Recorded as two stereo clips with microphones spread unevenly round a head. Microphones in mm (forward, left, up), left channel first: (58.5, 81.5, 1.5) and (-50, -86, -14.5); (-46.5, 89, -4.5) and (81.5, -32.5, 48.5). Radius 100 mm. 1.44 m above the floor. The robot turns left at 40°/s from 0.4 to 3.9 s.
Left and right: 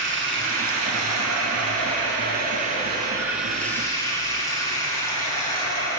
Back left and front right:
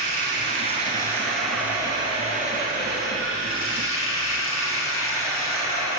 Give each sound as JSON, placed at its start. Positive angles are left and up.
{"t": 0.0, "sound": "running water", "azimuth_deg": -90, "distance_m": 7.5}